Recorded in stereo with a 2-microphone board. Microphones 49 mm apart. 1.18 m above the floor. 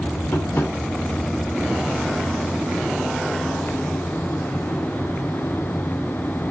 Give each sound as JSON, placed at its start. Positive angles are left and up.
{"t": 0.3, "sound": "tapping", "side_deg": 55, "distance_m": 1.5}